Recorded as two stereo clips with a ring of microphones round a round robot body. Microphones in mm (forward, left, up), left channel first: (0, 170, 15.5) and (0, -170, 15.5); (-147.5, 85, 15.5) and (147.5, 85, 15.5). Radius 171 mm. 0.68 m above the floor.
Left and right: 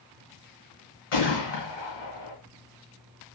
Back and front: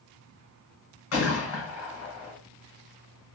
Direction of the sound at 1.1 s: 140° left.